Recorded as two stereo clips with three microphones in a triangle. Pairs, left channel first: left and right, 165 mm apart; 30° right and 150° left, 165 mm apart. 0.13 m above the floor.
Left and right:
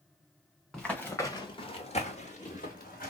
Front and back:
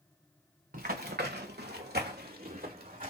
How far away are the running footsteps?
About 1.1 m.